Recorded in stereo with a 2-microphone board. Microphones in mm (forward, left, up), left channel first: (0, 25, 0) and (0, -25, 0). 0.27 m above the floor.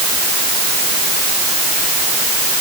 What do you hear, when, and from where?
Only background noise.